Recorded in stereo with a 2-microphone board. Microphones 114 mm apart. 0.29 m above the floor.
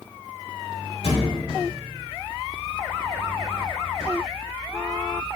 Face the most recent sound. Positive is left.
turn(degrees=50)  # may be behind; listen again after turning